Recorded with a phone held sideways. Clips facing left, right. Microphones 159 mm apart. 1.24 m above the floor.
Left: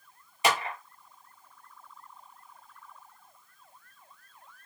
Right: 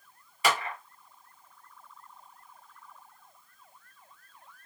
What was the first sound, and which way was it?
A clap, 20° left (ahead or behind).